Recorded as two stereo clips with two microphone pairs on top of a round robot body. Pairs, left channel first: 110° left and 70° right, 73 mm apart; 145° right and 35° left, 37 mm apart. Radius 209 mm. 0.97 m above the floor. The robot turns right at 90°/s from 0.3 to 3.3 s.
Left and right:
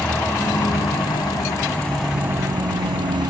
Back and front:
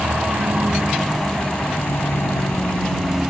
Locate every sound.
0.0 s a vehicle: 45° left; by 3.3 s 45° right